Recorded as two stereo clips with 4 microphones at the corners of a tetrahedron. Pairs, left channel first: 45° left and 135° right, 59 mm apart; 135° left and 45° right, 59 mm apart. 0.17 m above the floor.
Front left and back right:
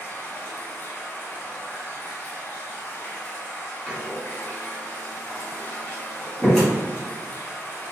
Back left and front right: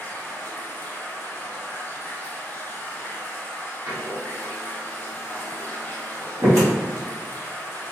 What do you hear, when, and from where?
0.0 s running water: 85° left, 0.8 m
3.9 s a door slam: 35° right, 1.3 m